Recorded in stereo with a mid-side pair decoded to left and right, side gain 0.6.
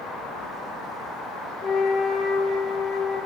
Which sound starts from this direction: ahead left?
A flute, at 1.6 s.